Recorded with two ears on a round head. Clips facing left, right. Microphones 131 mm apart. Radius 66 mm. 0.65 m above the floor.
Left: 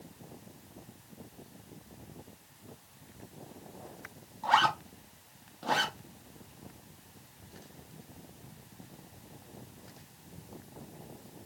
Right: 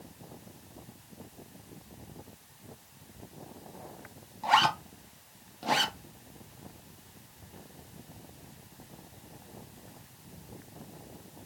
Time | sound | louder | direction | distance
4.4 | a zipper | right 1 dB | 15° right (ahead or behind) | 0.7 m